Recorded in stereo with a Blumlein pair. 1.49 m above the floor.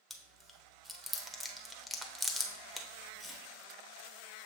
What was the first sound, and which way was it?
Chewing, 5° left.